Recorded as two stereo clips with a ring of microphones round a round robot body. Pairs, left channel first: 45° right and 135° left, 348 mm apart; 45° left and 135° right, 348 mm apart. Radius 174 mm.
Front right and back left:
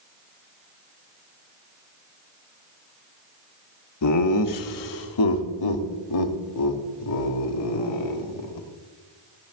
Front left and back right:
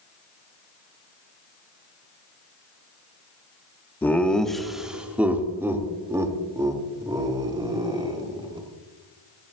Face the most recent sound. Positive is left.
turn(degrees=-60)